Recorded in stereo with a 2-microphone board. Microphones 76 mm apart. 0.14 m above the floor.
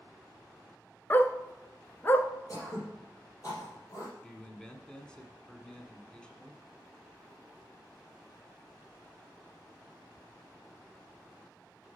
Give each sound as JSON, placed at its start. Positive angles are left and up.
{"t": 1.1, "sound": "a dog barking", "side_deg": 30, "distance_m": 0.6}
{"t": 2.5, "sound": "throat clearing", "side_deg": 45, "distance_m": 4.0}
{"t": 4.2, "sound": "a man speaking", "side_deg": 10, "distance_m": 1.0}